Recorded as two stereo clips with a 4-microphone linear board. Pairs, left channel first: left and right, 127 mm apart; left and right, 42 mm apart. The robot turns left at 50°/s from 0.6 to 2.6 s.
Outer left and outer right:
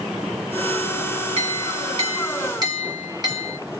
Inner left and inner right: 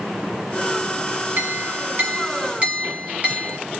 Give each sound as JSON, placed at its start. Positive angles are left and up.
{"t": 1.4, "sound": "a clink", "azimuth_deg": -80, "distance_m": 1.3}